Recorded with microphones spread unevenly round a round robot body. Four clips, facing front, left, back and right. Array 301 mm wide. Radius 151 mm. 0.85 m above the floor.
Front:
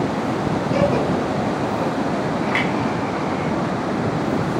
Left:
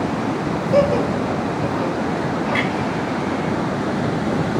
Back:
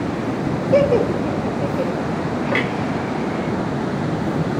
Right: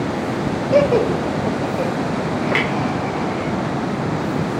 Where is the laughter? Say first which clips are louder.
Right 2 dB, back 5 dB; 140° right, 1.9 m.